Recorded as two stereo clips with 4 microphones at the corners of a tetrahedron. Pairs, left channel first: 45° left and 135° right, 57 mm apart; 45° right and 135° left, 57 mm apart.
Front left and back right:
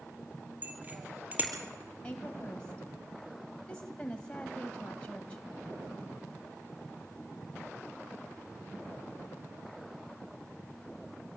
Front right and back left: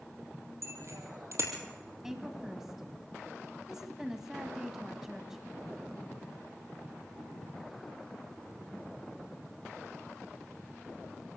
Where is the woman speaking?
70° left, 1.6 m.